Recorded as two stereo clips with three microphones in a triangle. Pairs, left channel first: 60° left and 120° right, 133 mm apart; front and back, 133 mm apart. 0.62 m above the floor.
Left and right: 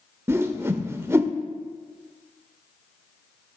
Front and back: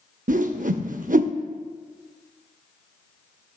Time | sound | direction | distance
0.3 | a whoosh | 170° left | 0.5 m